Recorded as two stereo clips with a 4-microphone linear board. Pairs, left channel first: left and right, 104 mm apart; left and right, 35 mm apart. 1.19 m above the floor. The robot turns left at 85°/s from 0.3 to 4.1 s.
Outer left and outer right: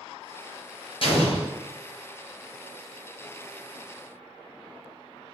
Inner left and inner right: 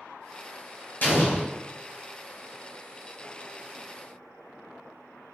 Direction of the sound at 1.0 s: 105° left.